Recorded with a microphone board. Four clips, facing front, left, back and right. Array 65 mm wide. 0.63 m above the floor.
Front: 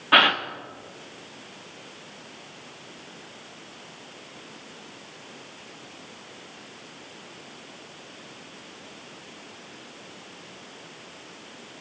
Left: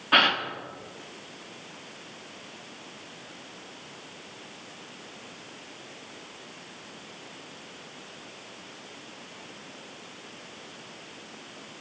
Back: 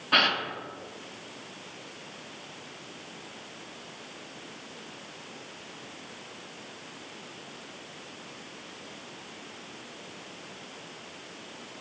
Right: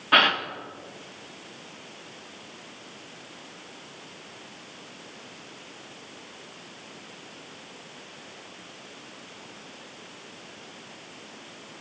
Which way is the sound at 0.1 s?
15° right.